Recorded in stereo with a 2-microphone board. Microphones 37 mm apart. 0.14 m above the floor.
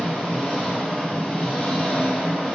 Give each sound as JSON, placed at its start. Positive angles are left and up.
{"t": 0.0, "sound": "an engine running", "side_deg": 30, "distance_m": 1.1}